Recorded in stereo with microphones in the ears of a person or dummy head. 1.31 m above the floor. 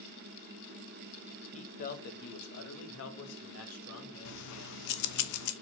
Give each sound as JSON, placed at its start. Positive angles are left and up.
{"t": 1.5, "sound": "a man speaking", "side_deg": 30, "distance_m": 1.8}
{"t": 4.2, "sound": "keys jangling", "side_deg": 60, "distance_m": 0.8}